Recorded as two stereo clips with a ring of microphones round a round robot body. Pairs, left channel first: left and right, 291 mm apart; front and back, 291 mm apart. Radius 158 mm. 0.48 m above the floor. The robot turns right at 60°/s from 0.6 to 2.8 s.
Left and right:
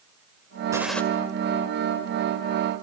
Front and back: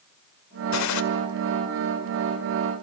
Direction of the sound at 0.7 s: 10° right.